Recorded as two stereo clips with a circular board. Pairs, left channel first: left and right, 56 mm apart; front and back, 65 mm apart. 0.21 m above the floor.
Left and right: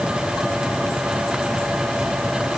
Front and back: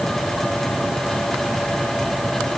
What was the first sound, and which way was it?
Only background noise.